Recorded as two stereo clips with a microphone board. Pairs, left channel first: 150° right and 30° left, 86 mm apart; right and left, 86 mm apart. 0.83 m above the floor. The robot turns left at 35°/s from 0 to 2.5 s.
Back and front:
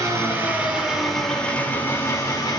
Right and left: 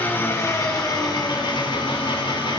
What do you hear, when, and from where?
0.0 s an engine running: 20° right, 2.5 m; by 2.6 s 110° right, 2.5 m